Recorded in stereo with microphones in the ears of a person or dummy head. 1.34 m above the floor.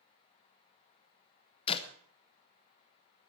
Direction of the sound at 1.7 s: 30° left (ahead or behind).